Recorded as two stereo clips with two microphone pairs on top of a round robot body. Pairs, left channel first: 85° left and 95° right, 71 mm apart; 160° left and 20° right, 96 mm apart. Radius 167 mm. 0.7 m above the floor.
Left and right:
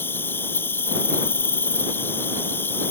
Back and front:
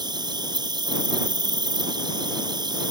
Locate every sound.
0.0 s an insect: 25° left